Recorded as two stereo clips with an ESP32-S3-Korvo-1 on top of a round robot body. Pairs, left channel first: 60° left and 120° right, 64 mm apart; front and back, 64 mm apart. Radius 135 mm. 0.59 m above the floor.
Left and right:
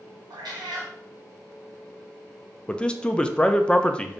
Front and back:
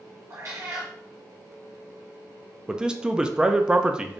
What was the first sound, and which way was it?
A cat meowing, 130° right.